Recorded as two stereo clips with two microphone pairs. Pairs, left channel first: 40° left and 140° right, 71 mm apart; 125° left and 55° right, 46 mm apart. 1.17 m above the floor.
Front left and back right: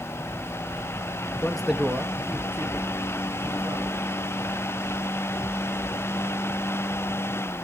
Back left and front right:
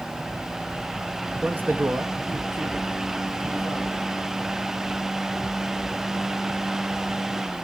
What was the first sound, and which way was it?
A man speaking, 15° right.